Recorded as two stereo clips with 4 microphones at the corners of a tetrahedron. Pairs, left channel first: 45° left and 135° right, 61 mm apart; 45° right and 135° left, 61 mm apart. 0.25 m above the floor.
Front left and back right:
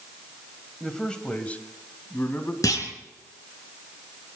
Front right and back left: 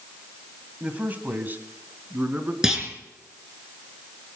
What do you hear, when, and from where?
0.8 s a man speaking: 120° left, 1.4 m; by 2.5 s 90° left, 2 m
2.6 s a clunk: 55° left, 3.5 m